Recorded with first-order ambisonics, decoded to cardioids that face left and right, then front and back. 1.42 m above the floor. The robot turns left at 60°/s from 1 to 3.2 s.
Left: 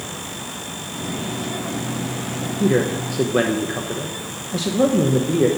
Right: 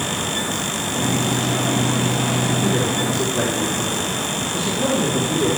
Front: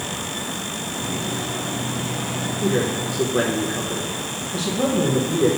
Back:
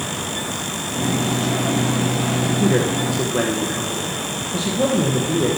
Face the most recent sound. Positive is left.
turn(degrees=105)